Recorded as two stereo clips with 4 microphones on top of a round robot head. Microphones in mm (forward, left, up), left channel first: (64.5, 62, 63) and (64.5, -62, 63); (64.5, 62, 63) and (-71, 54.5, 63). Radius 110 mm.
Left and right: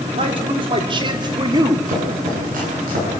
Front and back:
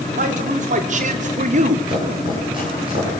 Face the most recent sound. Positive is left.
turn(degrees=-115)